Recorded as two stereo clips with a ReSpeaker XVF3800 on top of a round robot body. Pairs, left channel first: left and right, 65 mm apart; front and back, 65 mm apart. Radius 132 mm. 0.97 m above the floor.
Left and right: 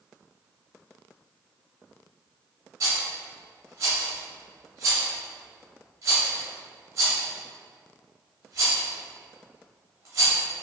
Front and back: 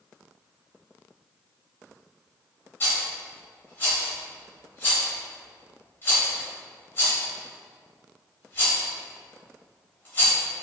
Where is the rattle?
50° right, 0.7 m.